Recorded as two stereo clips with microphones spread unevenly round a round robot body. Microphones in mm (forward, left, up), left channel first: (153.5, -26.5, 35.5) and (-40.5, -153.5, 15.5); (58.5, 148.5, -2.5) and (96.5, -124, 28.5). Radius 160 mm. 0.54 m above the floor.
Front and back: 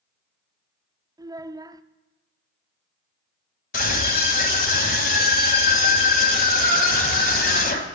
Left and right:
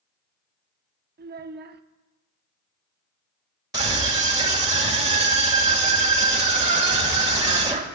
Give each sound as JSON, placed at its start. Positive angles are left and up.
{"t": 1.2, "sound": "a child speaking", "azimuth_deg": -100, "distance_m": 0.7}
{"t": 3.7, "sound": "a scream", "azimuth_deg": -5, "distance_m": 2.0}